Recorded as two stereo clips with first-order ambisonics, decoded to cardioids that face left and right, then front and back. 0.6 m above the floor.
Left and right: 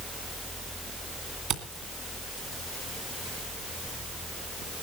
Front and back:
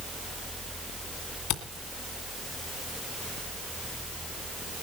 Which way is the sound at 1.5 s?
40° right.